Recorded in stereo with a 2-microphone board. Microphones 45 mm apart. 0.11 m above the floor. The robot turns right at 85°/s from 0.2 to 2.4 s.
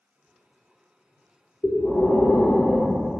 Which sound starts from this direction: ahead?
Breathing, at 1.6 s.